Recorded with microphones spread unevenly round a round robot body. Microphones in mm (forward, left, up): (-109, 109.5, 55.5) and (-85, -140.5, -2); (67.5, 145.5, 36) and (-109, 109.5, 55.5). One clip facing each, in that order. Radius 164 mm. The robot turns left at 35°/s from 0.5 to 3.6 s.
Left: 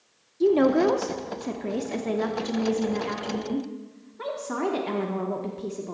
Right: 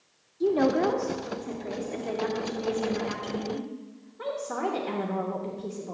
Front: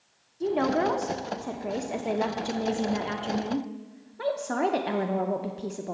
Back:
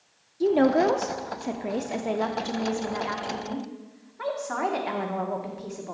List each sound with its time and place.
0.4 s a woman speaking: 145° left, 0.8 m; by 6.0 s 35° left, 0.8 m